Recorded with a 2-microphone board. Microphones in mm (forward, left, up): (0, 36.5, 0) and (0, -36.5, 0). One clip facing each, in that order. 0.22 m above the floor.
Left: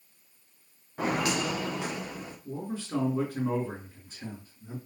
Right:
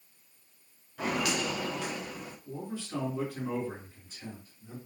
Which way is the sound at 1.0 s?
35° left (ahead or behind).